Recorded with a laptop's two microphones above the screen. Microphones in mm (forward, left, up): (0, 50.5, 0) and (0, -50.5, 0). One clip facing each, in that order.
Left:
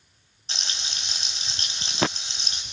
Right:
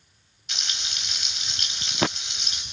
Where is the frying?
30° left (ahead or behind), 5 m.